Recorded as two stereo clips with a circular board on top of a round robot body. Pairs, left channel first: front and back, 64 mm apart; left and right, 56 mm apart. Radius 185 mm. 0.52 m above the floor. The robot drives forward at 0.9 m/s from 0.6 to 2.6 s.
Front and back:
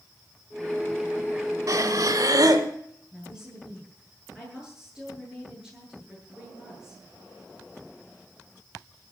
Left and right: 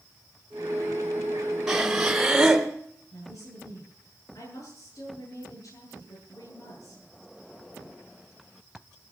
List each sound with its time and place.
1.7 s breathing: 170° right, 2.5 m; by 2.7 s 175° right, 3 m
3.1 s a woman speaking: 100° left, 9.5 m